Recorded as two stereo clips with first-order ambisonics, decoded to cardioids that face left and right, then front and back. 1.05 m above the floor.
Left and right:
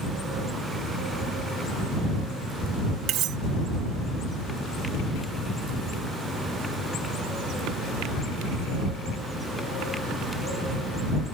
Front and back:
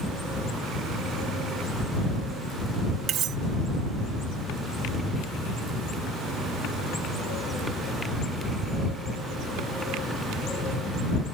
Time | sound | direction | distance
3.1 | cutlery clinking | 130° right | ?